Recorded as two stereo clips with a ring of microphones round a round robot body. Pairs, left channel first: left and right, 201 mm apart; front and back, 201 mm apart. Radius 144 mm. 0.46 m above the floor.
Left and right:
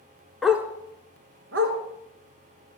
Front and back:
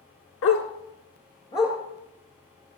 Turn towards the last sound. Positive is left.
turn(degrees=-105)